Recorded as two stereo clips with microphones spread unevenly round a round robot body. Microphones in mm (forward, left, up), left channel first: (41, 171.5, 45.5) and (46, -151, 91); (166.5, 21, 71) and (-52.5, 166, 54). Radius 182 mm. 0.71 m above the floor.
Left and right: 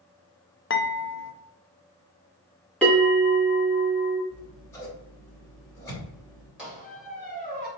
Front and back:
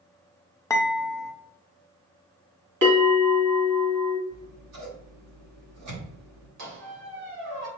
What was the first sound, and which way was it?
Dishes clattering, 50° left.